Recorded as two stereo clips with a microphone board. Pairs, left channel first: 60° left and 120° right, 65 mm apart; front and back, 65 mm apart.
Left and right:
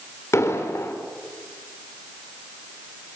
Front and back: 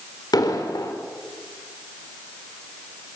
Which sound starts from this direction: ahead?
An explosion, at 0.3 s.